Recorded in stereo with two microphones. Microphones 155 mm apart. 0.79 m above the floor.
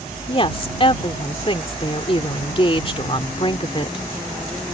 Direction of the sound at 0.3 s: 35° left (ahead or behind).